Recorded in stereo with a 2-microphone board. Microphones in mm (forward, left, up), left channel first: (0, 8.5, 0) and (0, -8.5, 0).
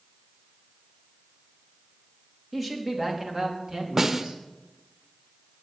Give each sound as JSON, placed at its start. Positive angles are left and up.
{"t": 2.5, "sound": "a man speaking", "side_deg": -10, "distance_m": 3.5}
{"t": 4.0, "sound": "a snare drum", "side_deg": -30, "distance_m": 1.2}